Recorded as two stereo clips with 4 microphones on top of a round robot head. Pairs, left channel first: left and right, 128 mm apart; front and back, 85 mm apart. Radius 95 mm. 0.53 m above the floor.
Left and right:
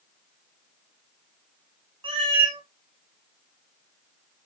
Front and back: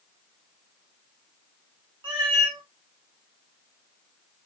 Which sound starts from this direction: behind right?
A cat meowing, at 2.0 s.